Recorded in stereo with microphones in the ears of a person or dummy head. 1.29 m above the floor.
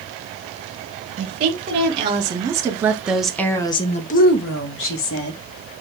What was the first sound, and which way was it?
A woman speaking, 35° right (ahead or behind).